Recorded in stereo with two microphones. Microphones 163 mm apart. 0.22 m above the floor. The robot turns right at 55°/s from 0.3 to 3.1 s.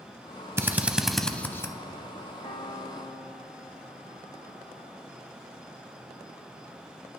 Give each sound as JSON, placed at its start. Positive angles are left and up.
{"t": 0.6, "sound": "a drill", "side_deg": -15, "distance_m": 0.6}
{"t": 2.4, "sound": "a piano", "azimuth_deg": 75, "distance_m": 3.0}